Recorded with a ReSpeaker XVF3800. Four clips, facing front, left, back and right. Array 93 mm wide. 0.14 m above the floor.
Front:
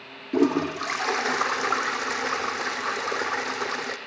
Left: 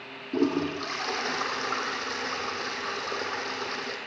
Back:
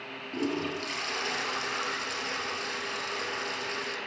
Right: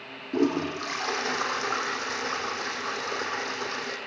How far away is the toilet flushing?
About 3.5 m.